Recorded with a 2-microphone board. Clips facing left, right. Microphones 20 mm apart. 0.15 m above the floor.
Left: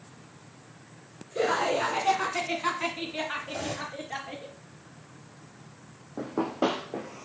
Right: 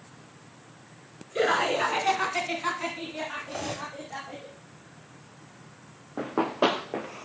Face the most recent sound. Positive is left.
turn(degrees=-75)  # may be behind; listen again after turning